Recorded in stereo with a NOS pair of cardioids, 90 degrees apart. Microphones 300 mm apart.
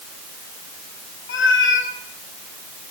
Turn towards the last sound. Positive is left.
turn(degrees=45)